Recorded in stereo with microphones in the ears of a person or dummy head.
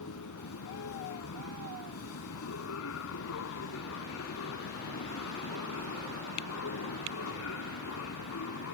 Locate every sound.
0.0 s a machine running: 80° left